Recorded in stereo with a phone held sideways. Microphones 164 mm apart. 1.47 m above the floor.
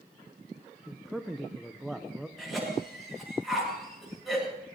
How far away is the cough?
About 8.5 m.